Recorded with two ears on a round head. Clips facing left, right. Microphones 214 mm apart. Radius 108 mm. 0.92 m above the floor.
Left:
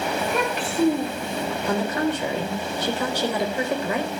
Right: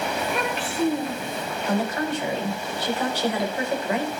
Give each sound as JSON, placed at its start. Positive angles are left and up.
{"t": 0.2, "sound": "a child speaking", "side_deg": 85, "distance_m": 9.5}
{"t": 1.7, "sound": "a woman speaking", "side_deg": 80, "distance_m": 5.0}